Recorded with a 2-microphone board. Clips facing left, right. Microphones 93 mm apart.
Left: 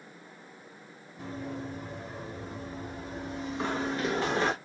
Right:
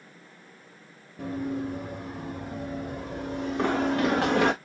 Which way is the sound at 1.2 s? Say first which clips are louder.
Right 7 dB; 60° right (ahead or behind).